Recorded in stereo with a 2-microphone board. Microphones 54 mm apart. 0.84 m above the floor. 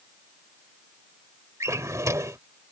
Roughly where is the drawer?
Right.